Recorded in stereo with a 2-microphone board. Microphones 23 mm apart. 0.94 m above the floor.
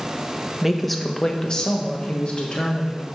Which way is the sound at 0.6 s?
15° right (ahead or behind).